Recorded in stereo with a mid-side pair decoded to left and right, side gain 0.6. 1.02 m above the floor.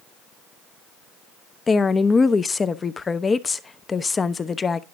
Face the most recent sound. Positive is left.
turn(degrees=25)